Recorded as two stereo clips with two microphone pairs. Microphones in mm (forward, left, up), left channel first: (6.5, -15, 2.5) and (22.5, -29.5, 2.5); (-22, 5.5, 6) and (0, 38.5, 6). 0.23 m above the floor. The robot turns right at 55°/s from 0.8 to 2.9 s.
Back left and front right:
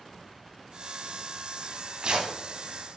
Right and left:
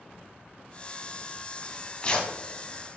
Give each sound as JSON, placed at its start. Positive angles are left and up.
{"t": 1.6, "sound": "tearing paper", "azimuth_deg": -90, "distance_m": 1.0}